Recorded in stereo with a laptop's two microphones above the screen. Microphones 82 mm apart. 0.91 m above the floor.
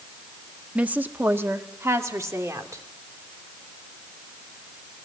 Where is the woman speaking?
15° right (ahead or behind), 1.2 m; by 2.9 s 45° right (ahead or behind), 2.5 m.